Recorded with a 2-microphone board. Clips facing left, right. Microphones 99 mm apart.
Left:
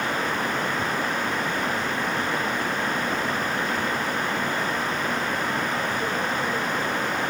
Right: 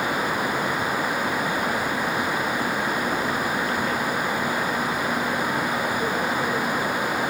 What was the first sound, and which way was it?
Only background noise.